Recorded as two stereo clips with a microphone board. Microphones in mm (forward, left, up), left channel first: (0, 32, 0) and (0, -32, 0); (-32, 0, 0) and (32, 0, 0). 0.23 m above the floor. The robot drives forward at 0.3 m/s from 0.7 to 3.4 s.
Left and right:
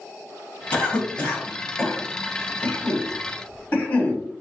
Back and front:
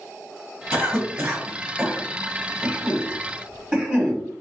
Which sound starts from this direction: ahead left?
A cough, at 0.7 s.